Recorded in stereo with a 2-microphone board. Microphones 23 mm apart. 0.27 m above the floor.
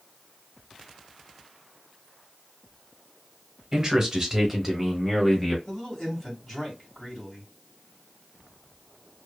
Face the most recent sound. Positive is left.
turn(degrees=10)  # may be behind; listen again after turning